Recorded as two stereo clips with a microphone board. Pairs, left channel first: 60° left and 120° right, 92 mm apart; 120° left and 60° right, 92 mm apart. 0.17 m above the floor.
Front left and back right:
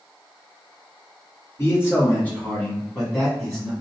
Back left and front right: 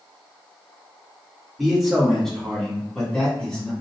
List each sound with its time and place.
1.6 s a man speaking: 30° left, 1.5 m; by 3.7 s straight behind, 1.4 m